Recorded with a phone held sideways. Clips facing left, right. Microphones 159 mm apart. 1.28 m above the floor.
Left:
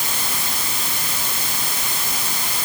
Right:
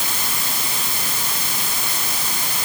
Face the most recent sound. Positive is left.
No sound to turn to.